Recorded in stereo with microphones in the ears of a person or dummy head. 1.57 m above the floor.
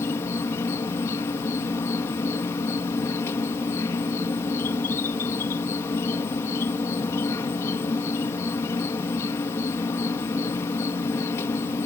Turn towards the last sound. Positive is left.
turn(degrees=15)  # may be behind; listen again after turning